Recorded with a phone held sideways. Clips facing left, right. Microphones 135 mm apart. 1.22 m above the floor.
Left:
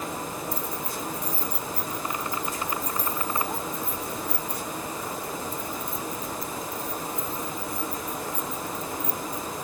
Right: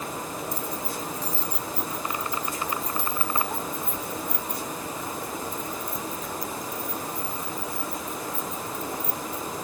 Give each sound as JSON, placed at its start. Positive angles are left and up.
{"t": 0.5, "sound": "keys jangling", "side_deg": 60}